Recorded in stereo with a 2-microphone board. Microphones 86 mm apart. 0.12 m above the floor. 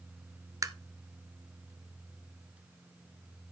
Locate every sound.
0.6 s tapping: 40° right (ahead or behind), 0.6 m